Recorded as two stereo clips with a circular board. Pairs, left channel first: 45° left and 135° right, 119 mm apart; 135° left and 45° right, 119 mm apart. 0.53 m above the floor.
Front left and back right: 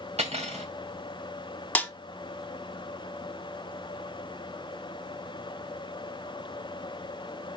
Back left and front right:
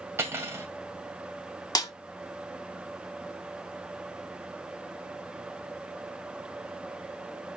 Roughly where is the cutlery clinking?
Behind right.